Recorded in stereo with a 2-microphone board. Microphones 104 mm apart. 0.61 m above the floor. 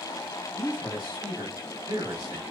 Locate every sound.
0.5 s a man speaking: 45° right (ahead or behind), 1.8 m